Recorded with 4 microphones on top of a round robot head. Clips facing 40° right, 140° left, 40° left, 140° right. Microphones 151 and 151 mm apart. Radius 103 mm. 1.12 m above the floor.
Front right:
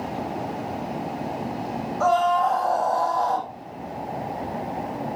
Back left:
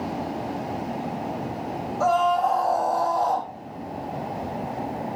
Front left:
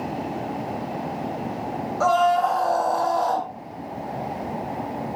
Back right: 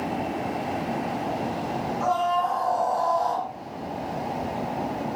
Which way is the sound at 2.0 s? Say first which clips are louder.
Front right 1 dB, front left 6 dB; 55° left.